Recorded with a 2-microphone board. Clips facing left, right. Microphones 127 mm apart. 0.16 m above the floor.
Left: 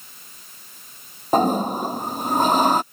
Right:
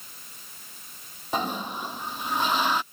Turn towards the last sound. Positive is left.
turn(degrees=45)  # may be behind; listen again after turning